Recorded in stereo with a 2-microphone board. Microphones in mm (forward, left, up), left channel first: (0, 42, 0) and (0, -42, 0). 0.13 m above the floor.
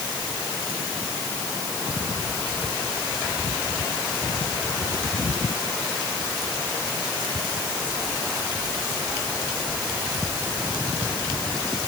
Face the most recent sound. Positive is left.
No sound to turn to.